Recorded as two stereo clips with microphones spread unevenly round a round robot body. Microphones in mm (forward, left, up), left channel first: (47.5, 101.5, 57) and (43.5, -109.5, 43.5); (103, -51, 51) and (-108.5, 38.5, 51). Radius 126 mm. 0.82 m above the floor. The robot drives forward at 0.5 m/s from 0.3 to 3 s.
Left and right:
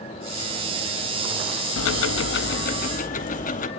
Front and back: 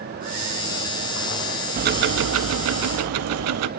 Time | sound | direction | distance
1.8 | ticking | 105° left | 0.6 m